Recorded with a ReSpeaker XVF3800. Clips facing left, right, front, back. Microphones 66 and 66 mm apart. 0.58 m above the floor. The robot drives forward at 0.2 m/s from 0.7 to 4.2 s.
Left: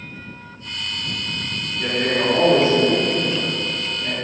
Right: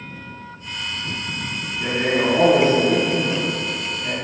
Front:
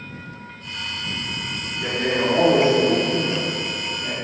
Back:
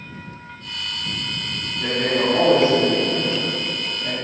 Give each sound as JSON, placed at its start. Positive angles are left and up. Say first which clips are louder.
{"t": 1.8, "sound": "a man speaking", "louder": "right 1 dB, back 1 dB", "azimuth_deg": 175, "distance_m": 1.6}